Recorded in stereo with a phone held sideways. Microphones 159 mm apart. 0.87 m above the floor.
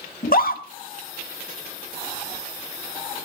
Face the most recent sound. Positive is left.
turn(degrees=65)  # may be behind; listen again after turning